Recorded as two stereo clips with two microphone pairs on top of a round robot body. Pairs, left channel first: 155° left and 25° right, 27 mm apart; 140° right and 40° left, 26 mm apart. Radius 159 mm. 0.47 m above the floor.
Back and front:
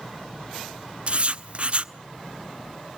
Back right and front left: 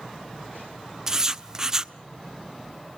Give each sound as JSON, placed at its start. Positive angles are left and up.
{"t": 1.1, "sound": "writing", "azimuth_deg": -25, "distance_m": 0.9}